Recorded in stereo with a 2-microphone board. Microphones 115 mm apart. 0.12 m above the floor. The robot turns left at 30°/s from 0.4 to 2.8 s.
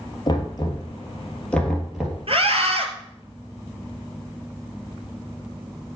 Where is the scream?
60° right (ahead or behind), 2 m.